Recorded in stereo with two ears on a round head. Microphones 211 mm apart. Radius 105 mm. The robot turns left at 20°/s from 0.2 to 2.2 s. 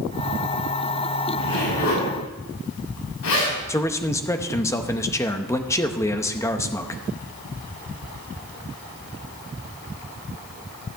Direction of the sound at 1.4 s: 60° left (ahead or behind).